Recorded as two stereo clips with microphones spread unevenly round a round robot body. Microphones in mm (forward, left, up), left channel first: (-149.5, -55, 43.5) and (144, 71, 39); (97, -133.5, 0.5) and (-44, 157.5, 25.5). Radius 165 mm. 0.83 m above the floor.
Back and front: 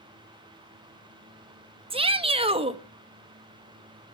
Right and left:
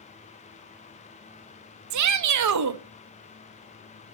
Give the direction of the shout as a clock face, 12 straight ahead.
9 o'clock.